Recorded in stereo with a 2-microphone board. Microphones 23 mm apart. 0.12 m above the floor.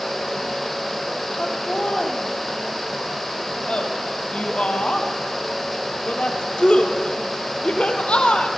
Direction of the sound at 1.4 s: 60° left (ahead or behind).